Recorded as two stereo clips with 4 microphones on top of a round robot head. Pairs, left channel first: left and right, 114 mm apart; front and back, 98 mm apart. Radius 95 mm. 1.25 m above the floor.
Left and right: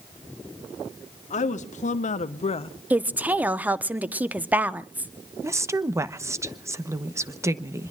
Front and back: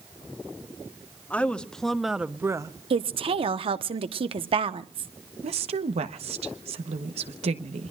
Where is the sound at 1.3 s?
75° left, 1.6 m; by 2.7 s 130° left, 0.7 m.